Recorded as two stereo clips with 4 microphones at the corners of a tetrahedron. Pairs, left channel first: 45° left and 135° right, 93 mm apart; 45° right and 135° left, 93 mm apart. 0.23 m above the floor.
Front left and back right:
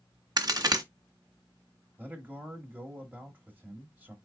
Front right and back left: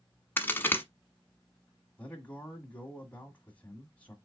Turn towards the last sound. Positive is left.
turn(degrees=-95)